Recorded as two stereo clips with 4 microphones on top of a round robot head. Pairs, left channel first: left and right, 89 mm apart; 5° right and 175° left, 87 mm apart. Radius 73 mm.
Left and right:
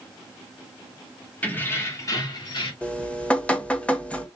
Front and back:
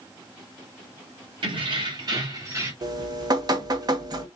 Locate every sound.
1.4 s keys jangling: 160° left, 1.9 m; by 2.7 s 120° left, 2 m
2.8 s dripping: 160° left, 1.2 m